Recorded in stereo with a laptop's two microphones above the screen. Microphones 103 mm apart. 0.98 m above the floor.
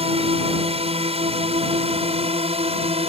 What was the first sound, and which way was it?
A drone, 70° right (ahead or behind).